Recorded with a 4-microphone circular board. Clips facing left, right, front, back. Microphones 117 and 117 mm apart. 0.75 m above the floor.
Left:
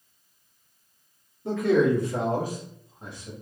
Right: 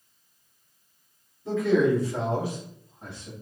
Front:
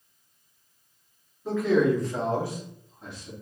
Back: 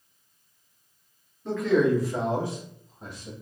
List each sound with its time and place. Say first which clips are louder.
1.4 s a man speaking: even, even; 80° left, 1.4 m; by 3.3 s 165° left, 1.1 m